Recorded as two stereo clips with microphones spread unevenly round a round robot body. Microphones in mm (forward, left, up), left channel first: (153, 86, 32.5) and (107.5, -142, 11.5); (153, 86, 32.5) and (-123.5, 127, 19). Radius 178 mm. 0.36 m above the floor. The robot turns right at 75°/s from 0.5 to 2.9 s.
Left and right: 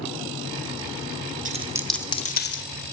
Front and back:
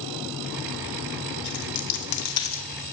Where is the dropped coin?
50° right, 0.7 m; by 2.7 s 45° left, 0.7 m.